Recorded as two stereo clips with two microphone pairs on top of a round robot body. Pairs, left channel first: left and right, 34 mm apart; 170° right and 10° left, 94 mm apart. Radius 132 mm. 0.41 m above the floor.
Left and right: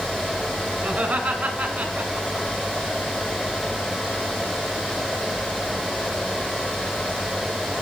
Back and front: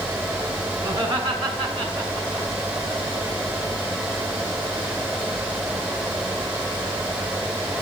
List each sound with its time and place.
0.8 s laughter: 35° right, 5.5 m